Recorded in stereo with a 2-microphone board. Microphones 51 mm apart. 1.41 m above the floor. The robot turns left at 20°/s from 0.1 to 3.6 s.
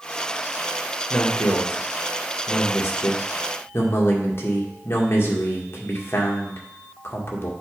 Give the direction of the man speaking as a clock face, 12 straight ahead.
9 o'clock.